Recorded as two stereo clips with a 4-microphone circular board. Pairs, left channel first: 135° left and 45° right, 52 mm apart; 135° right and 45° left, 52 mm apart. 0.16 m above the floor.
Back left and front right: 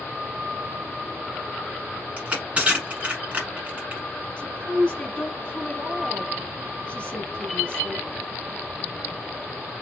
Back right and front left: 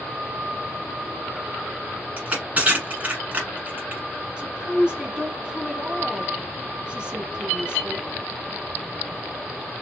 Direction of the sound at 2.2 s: 5° left.